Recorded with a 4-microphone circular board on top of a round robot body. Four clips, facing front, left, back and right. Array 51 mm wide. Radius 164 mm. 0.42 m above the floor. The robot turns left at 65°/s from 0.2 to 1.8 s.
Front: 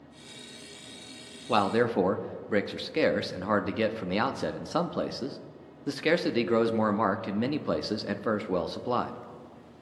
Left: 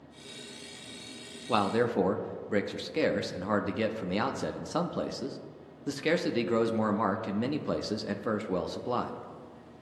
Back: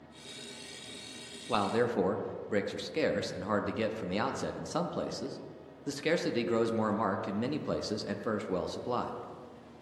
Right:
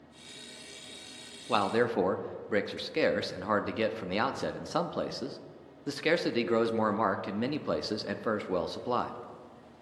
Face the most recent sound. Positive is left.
turn(degrees=-25)